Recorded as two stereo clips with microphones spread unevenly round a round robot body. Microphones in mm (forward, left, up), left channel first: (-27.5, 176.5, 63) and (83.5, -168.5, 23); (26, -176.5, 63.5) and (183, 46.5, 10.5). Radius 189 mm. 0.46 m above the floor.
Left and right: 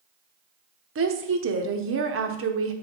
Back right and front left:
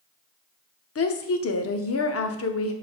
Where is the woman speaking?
100° right, 0.9 m.